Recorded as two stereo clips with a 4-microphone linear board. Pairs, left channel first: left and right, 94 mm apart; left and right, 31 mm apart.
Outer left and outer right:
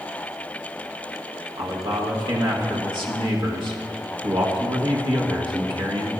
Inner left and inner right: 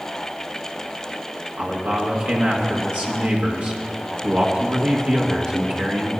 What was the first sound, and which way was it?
A man speaking, 60° right (ahead or behind).